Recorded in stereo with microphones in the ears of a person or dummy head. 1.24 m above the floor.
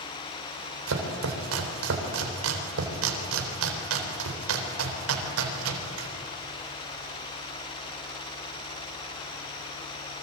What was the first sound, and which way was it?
Chopping, 85° right.